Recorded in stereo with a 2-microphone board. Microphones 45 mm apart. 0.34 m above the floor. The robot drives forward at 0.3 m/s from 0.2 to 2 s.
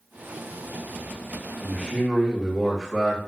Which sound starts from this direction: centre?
A man speaking, at 1.6 s.